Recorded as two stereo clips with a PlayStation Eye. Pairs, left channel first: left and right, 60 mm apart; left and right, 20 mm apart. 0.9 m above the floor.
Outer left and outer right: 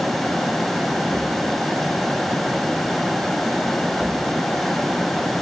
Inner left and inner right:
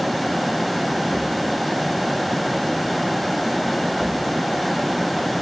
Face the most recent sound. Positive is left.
No sound to turn to.